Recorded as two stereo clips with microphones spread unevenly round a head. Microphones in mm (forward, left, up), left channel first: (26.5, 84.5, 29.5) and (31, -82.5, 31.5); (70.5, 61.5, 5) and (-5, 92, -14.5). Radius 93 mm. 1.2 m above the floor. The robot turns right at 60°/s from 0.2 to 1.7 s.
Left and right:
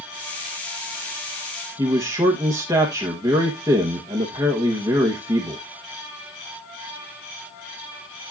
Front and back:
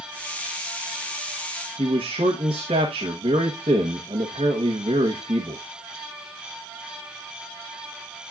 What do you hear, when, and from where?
1.8 s a man speaking: 160° right, 1.3 m